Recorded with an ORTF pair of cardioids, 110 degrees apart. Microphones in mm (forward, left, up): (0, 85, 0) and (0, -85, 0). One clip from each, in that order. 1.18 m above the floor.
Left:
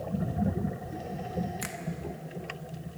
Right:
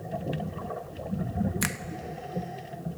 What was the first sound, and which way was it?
A finger snap, 45° right.